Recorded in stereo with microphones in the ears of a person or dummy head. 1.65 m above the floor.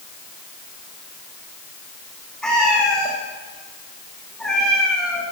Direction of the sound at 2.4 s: Centre (ahead or behind).